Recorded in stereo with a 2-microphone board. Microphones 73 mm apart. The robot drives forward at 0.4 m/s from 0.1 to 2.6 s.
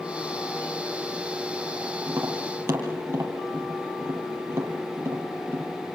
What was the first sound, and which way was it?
Tapping, 35° right (ahead or behind).